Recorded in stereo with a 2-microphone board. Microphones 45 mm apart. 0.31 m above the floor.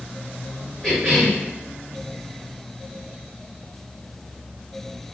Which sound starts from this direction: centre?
A cough, at 0.8 s.